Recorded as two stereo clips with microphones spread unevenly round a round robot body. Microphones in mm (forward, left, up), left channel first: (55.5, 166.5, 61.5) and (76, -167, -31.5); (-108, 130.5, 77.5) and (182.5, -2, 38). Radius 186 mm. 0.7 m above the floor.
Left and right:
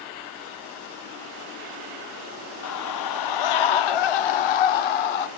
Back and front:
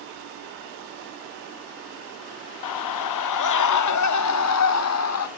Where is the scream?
150° left, 0.8 m; by 5.3 s 110° left, 2 m.